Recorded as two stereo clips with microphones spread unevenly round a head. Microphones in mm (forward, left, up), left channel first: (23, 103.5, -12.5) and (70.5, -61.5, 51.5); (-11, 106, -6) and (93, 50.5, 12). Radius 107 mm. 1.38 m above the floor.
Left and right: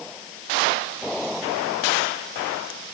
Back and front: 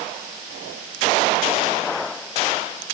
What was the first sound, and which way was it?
Only background noise.